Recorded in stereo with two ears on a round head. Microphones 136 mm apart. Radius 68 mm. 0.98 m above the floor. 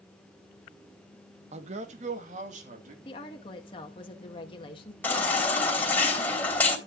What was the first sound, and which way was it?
A man speaking, 45° right (ahead or behind).